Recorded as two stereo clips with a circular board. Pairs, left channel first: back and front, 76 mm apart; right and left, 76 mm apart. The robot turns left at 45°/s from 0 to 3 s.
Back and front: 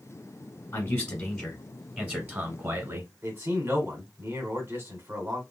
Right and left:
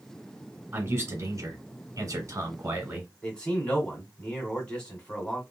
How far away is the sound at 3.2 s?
About 1.9 m.